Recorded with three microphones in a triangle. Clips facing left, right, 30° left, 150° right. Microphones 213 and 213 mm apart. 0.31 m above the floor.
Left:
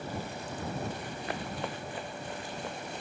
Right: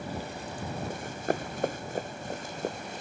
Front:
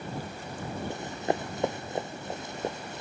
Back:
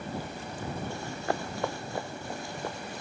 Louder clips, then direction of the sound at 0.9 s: Right 6 dB, front 5 dB; 45° right.